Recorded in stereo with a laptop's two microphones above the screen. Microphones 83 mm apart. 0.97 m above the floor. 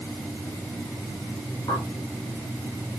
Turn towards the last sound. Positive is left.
turn(degrees=75)  # may be behind; listen again after turning